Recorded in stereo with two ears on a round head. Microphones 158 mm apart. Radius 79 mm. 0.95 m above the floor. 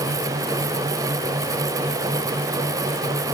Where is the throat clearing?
I don't hear throat clearing.